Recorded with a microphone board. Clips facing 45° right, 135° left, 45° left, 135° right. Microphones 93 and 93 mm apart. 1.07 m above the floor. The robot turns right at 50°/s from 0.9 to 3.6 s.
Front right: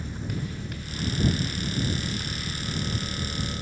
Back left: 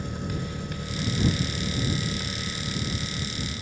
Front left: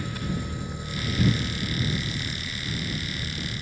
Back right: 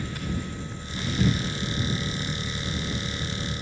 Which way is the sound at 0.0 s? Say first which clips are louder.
Back left 1 dB, front left 1 dB; 120° left.